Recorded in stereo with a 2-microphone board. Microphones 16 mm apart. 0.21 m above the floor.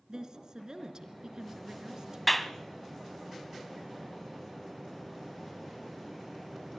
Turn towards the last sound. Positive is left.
turn(degrees=5)  # may be behind; listen again after turning